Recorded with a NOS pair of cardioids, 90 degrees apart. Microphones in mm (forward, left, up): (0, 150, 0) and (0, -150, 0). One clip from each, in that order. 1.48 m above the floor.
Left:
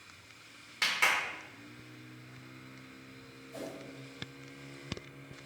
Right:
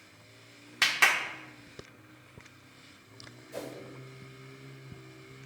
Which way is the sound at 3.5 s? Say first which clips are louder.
Right 3 dB; 55° right.